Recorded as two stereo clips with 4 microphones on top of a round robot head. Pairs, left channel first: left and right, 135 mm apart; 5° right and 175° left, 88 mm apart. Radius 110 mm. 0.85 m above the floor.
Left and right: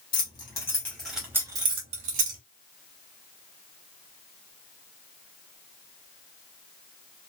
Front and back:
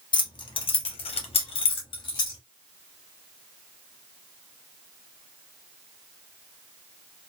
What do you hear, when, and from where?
0.1 s keys jangling: 30° left, 0.9 m; by 2.4 s 60° right, 0.8 m